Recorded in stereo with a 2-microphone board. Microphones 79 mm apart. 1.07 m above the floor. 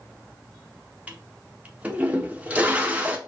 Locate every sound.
1.1 s a toilet flushing: 15° right (ahead or behind), 0.6 m